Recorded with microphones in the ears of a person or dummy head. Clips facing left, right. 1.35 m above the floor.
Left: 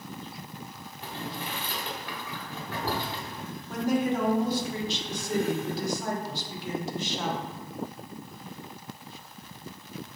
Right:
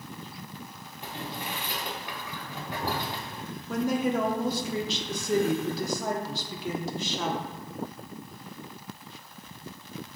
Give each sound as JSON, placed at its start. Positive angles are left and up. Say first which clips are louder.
{"t": 1.0, "sound": "boiling", "louder": "even", "side_deg": -15, "distance_m": 0.8}
{"t": 3.7, "sound": "a woman speaking", "louder": "even", "side_deg": -70, "distance_m": 0.8}